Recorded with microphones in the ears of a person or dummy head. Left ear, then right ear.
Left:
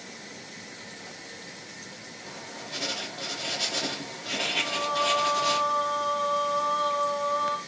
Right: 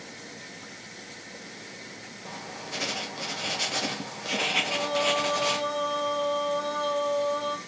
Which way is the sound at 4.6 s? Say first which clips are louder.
Even; 30° right (ahead or behind).